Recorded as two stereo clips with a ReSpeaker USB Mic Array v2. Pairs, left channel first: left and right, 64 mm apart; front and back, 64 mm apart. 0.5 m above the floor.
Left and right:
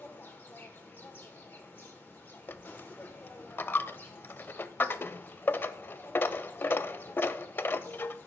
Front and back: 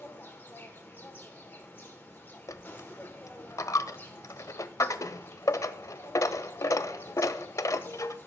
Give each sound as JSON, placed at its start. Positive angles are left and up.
{"t": 0.0, "sound": "an insect", "azimuth_deg": 45, "distance_m": 1.6}
{"t": 2.5, "sound": "a dropped coin", "azimuth_deg": 35, "distance_m": 0.5}